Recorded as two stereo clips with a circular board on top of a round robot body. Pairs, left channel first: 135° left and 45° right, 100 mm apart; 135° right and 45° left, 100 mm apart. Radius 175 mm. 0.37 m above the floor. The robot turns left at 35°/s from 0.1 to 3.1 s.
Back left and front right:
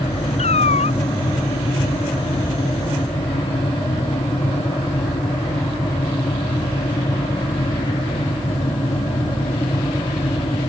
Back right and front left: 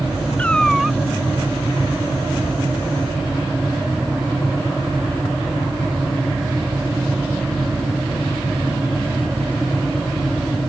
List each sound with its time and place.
0.4 s a cat meowing: 150° left; by 1.0 s 125° left